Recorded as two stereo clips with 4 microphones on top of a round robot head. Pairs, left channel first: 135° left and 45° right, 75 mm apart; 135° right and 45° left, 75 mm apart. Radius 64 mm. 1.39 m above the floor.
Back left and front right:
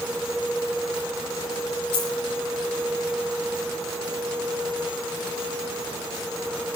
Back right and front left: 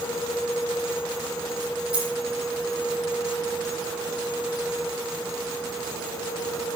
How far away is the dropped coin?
About 9.5 m.